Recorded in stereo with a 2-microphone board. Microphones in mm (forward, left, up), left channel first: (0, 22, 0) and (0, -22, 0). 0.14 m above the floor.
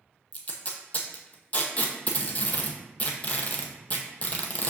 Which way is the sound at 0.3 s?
35° left (ahead or behind).